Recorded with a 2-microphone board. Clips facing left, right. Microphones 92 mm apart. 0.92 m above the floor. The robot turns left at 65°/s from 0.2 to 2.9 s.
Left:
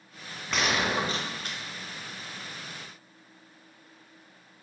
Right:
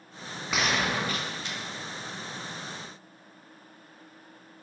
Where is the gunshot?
170° right, 0.7 m; by 1.6 s 120° left, 0.7 m.